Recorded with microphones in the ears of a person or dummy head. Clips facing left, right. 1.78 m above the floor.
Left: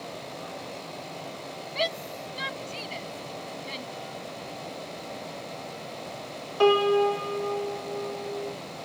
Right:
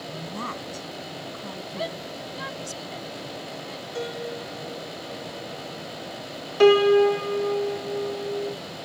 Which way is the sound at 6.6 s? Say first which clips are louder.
Right 5 dB; 25° right (ahead or behind).